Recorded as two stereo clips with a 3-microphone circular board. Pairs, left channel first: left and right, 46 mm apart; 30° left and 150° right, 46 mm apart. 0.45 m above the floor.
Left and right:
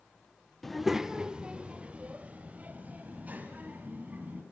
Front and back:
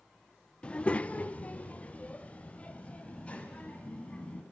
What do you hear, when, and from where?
0.6 s a child speaking: 15° left, 0.6 m; by 4.4 s 35° right, 2.5 m